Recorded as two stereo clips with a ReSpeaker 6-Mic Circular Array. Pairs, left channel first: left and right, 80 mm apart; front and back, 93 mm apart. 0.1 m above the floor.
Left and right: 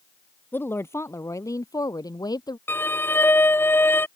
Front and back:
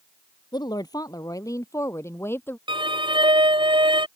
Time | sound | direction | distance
0.5 | a woman speaking | 30° left | ?
2.7 | a violin | 155° left | ?